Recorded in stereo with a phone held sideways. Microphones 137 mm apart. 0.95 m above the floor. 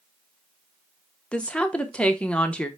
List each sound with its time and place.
1.3 s a woman speaking: 10° left (ahead or behind), 0.7 m